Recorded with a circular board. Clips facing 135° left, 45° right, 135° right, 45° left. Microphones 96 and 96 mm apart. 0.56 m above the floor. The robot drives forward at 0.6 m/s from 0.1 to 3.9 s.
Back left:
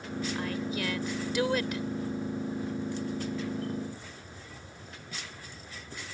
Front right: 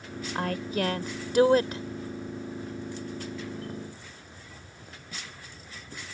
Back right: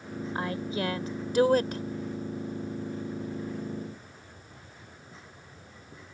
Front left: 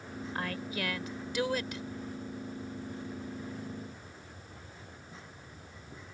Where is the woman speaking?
70° right; by 1.8 s 100° right.